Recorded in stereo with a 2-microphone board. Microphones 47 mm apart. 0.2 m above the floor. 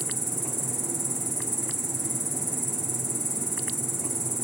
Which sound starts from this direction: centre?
An insect, at 0.0 s.